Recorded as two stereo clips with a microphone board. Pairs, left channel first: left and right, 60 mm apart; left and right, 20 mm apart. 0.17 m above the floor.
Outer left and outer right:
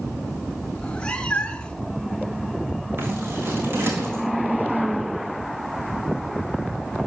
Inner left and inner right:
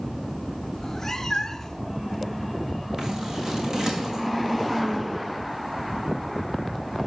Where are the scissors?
40° right (ahead or behind), 4 m.